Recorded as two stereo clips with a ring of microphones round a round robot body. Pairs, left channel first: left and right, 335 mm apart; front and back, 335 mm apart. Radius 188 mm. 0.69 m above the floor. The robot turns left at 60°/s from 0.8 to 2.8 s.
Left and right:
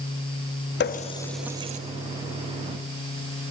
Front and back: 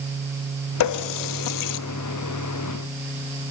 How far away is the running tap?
About 0.6 m.